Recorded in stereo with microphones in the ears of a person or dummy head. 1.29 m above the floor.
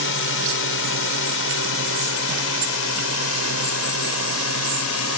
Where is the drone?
65° left (ahead or behind); by 5.2 s 75° left (ahead or behind).